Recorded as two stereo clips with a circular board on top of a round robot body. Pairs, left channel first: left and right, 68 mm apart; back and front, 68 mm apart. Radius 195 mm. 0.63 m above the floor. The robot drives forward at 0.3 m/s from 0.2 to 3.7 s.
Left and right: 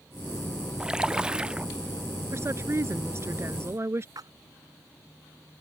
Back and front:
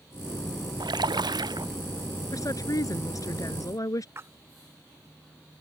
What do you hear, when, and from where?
0.8 s a splash: 10° right; by 1.7 s 15° right
2.3 s a woman speaking: 140° right
4.2 s a splash: 55° right